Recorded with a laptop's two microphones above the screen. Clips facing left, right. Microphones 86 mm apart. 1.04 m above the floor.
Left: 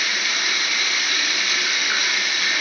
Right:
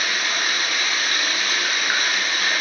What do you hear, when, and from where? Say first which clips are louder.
0.0 s running water: right 1 dB; 40° right (ahead or behind), 3.5 m